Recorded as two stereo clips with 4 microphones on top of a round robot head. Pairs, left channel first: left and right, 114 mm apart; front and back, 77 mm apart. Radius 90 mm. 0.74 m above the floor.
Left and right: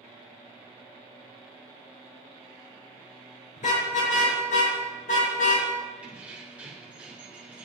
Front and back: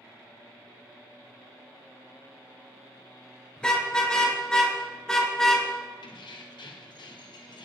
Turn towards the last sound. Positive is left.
turn(degrees=-10)